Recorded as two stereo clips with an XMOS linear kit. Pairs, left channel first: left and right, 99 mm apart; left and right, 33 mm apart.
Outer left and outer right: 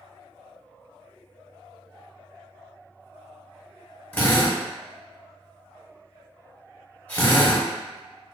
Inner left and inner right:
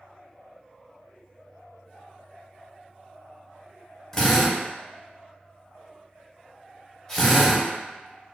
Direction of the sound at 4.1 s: 15° left (ahead or behind).